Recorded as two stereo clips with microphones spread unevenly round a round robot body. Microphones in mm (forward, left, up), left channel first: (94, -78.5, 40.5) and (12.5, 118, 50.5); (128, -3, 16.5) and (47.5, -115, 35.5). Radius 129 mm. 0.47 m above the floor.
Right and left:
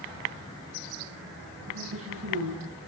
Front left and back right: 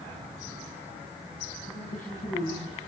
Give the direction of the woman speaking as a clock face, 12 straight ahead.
9 o'clock.